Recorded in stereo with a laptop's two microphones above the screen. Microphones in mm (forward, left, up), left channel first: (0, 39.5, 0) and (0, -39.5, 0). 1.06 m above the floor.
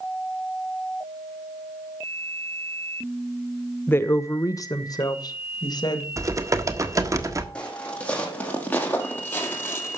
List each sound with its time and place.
3.9 s a woman speaking: 25° left (ahead or behind), 0.8 m; by 6.1 s 60° left (ahead or behind), 1.9 m
6.2 s typing on a keyboard: 40° right (ahead or behind), 1.4 m
7.5 s footsteps: 15° left (ahead or behind), 3.5 m; by 10.0 s 30° left (ahead or behind), 2.0 m